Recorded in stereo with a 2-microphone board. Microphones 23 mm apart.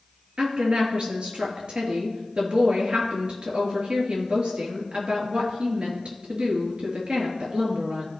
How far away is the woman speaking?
About 2.5 m.